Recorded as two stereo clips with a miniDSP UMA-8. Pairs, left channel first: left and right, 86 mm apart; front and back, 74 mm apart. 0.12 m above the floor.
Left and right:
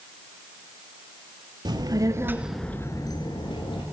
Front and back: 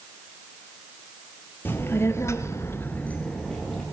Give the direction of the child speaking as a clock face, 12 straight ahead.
2 o'clock.